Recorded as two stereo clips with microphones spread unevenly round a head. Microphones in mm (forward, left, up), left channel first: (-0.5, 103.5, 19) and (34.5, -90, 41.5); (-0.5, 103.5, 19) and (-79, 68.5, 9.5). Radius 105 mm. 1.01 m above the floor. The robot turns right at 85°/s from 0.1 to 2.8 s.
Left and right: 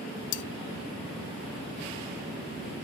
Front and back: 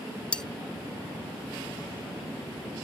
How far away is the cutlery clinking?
About 0.7 m.